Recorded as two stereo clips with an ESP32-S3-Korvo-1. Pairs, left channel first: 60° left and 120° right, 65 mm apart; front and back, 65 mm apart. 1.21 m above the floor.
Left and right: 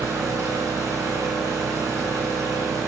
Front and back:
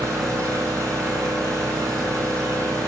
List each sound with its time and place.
0.0 s an engine running: 140° right, 5 m